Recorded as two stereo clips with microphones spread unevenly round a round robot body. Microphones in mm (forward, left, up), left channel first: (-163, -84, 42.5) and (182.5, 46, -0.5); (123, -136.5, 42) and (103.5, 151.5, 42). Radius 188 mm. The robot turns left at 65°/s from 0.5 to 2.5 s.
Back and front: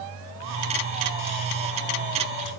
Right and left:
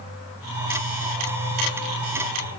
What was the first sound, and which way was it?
Only background noise.